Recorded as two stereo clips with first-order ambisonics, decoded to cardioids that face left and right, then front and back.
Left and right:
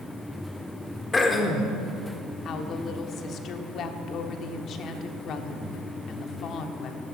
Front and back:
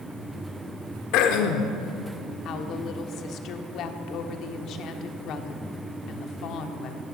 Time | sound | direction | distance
1.1 | throat clearing | 15° left | 1.2 m
2.5 | a woman speaking | 40° left | 1.1 m